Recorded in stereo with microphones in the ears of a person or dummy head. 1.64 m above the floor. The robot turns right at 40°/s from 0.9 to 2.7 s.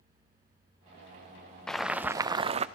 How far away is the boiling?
About 0.5 m.